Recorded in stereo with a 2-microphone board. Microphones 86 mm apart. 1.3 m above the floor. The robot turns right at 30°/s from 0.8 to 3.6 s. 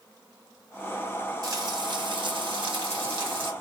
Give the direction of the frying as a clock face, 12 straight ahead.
5 o'clock.